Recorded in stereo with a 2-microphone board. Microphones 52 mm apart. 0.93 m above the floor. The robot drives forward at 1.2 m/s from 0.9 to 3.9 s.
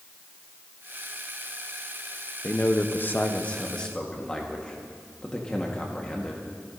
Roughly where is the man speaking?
Left.